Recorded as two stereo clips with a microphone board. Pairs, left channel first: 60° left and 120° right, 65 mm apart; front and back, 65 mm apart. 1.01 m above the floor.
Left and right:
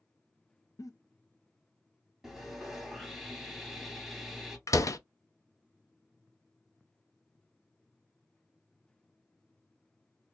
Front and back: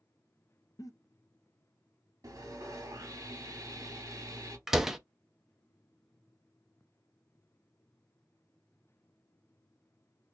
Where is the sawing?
150° left, 2.5 m.